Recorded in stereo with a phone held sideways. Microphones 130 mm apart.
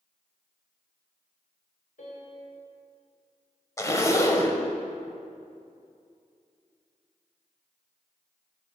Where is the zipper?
20° left (ahead or behind), 0.8 m.